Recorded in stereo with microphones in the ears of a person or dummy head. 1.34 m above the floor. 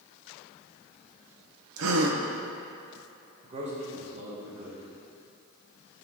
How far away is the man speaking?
About 1.0 m.